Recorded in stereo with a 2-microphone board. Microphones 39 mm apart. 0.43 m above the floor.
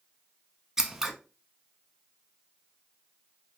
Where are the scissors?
10° right (ahead or behind), 0.7 m.